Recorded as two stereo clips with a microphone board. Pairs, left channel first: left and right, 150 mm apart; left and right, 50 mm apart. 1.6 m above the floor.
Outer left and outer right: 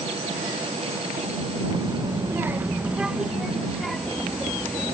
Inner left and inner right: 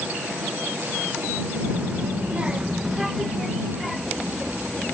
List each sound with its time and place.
1.7 s a child speaking: 30° right (ahead or behind); by 5.0 s 5° left (ahead or behind)